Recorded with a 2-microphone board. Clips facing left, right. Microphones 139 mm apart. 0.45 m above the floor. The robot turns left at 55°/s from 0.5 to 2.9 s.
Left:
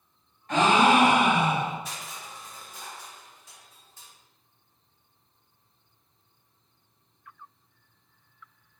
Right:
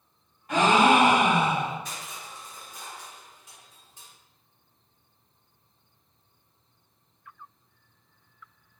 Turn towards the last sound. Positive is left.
turn(degrees=-15)  # may be behind; listen again after turning